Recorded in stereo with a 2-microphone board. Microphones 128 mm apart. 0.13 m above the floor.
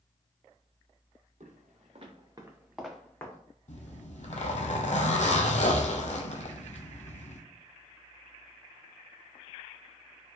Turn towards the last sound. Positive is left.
turn(degrees=60)  # may be behind; listen again after turning